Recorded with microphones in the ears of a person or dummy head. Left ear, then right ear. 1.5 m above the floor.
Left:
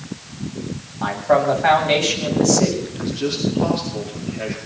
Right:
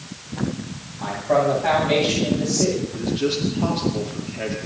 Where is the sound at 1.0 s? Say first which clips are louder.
Left 3 dB; 45° left (ahead or behind), 9.5 m.